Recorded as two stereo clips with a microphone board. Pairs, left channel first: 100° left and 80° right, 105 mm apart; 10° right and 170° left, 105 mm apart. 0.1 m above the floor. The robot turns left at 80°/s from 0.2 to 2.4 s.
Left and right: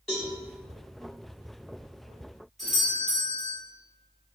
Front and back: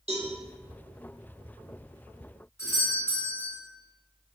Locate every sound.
0.1 s a cowbell: 175° right, 1.3 m; by 0.3 s straight behind, 1.3 m
2.6 s a doorbell: 10° left, 1.7 m